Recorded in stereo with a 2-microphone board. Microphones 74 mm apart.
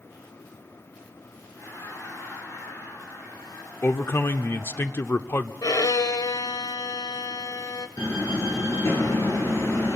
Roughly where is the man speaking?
Left.